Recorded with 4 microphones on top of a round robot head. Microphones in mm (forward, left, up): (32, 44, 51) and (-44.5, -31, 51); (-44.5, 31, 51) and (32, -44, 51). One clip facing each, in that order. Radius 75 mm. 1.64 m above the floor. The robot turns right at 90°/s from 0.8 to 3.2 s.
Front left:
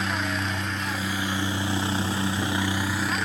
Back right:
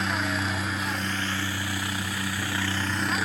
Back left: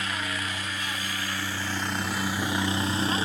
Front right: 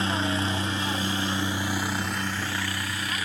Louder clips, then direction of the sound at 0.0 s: Even, front right 6 dB; 45° right.